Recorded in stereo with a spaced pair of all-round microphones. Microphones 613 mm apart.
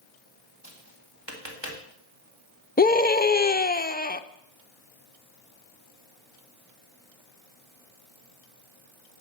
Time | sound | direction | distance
0.6 | tapping | 45° right (ahead or behind) | 2 m
2.8 | a scream | 15° left (ahead or behind) | 0.6 m